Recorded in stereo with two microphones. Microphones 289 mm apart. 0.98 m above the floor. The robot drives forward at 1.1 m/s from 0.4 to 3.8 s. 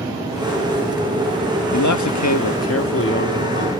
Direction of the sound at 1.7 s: 75° left (ahead or behind).